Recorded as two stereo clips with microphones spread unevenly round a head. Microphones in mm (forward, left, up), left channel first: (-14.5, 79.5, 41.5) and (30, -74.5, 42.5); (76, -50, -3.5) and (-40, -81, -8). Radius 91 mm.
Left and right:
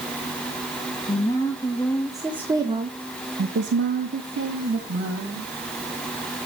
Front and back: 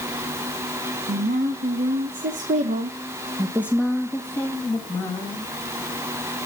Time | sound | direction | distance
1.1 | a woman speaking | 175° left | 1.4 m